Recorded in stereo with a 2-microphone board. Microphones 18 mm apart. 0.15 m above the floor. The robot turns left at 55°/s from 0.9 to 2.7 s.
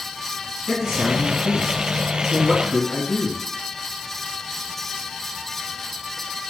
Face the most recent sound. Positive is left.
turn(degrees=10)  # may be behind; listen again after turning